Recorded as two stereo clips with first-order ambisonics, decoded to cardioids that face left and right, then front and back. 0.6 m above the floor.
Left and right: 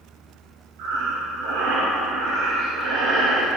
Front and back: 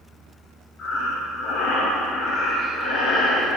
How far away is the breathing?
About 6 m.